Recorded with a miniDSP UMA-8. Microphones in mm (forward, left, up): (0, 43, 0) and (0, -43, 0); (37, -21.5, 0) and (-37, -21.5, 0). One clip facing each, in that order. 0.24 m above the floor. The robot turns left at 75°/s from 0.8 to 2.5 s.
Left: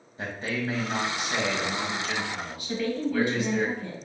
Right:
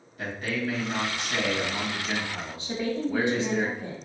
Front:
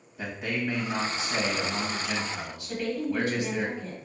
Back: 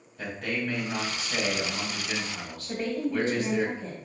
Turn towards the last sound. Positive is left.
turn(degrees=-145)